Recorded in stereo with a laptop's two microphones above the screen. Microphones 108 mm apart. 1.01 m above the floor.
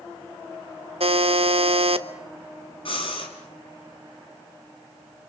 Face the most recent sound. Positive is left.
turn(degrees=55)  # may be behind; listen again after turning